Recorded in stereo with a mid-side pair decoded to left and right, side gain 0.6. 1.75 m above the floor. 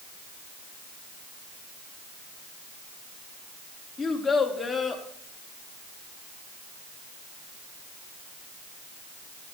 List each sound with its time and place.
4.0 s a child speaking: 15° left, 3.5 m